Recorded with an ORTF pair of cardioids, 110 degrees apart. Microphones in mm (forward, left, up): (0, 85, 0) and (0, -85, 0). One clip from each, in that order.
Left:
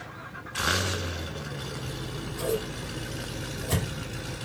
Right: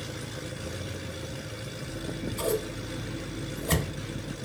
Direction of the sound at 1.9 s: 40° right.